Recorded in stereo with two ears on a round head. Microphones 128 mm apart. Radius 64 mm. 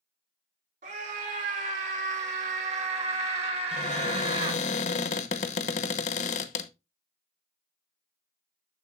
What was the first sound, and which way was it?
A scream, 55° right (ahead or behind).